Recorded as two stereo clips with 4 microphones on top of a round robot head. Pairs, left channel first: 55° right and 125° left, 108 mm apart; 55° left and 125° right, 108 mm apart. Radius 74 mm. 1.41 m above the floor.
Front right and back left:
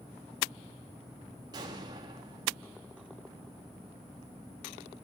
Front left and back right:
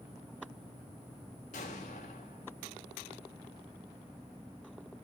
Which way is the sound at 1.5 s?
75° left.